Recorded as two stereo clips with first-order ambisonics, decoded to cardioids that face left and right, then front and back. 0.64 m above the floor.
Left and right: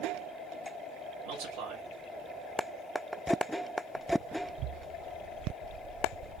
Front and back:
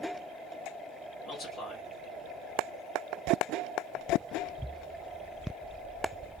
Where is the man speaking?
75° right, 1.0 m.